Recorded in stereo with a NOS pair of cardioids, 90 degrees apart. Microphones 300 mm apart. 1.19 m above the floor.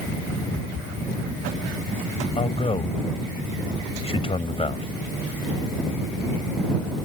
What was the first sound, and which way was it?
A man speaking, 20° left.